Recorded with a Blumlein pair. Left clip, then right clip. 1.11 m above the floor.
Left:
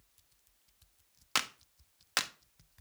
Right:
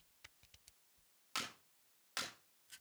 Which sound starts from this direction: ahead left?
A clap, at 1.4 s.